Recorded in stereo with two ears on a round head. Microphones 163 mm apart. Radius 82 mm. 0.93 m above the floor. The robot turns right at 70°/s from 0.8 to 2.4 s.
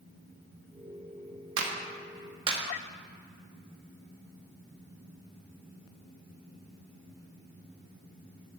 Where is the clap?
75° right (ahead or behind), 1.3 m; by 2.6 s 30° right (ahead or behind), 1.3 m.